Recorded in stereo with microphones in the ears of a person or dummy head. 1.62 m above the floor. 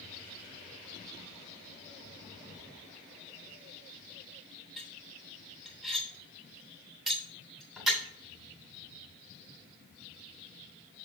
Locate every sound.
4.8 s cutlery clinking: 5° right (ahead or behind), 3 m